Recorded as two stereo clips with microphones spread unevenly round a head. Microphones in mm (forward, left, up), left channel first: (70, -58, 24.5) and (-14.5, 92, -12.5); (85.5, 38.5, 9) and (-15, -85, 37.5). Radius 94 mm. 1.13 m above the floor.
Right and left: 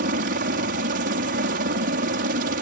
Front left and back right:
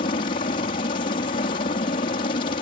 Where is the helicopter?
100° left.